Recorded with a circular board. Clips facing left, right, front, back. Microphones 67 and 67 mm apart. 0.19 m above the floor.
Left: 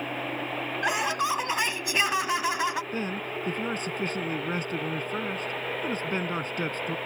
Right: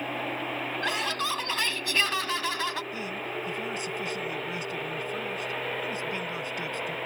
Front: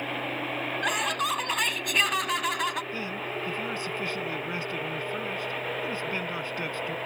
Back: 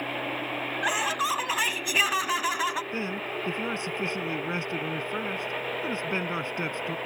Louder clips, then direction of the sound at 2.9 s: Left 2 dB, back 1 dB; 120° left.